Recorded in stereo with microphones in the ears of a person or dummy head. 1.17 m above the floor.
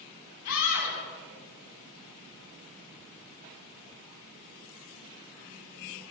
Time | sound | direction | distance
0.5 | a scream | 75° left (ahead or behind) | 8.5 m